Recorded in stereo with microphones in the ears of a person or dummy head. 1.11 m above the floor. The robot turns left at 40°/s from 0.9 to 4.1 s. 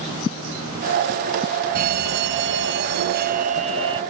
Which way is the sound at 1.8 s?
70° right.